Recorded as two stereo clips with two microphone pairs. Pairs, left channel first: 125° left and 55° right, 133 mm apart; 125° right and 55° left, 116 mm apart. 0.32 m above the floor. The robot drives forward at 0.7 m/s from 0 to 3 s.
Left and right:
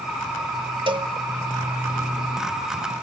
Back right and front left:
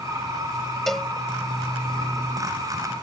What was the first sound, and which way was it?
A cowbell, 40° right.